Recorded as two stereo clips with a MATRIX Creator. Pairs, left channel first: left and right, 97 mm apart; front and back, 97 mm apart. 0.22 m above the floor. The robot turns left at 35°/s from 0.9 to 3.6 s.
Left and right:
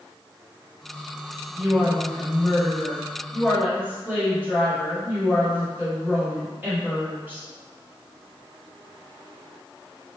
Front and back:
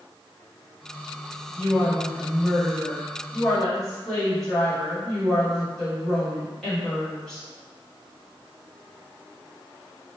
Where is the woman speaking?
5° right, 1.5 m; by 7.5 s 75° right, 1.5 m.